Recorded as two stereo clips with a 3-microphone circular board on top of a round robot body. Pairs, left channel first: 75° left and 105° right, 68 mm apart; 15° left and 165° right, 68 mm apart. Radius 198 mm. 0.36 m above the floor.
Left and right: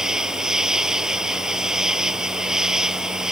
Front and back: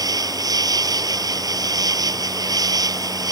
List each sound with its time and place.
0.0 s an insect: 170° left